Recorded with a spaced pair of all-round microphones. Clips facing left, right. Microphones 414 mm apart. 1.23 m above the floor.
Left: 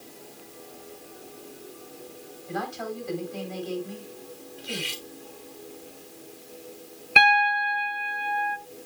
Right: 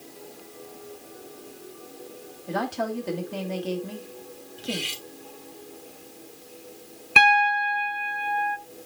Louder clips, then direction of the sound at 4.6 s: Right 4 dB; 50° right (ahead or behind).